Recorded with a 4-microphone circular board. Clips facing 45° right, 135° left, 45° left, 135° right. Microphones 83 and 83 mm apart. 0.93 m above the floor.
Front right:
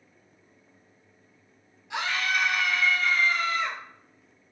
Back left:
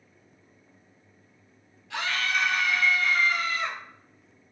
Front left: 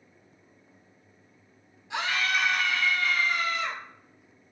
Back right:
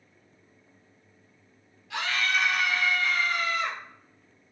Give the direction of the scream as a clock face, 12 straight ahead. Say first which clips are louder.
Front right 1 dB, even; 12 o'clock.